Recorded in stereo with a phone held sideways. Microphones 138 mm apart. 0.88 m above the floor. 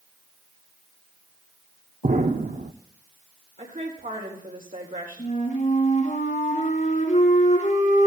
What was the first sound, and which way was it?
An explosion, 70° right (ahead or behind).